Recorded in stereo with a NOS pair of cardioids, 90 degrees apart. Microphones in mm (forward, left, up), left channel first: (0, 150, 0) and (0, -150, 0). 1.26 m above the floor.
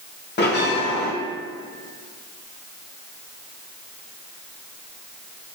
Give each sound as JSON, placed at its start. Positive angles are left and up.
{"t": 0.4, "sound": "a bell", "azimuth_deg": 35, "distance_m": 1.1}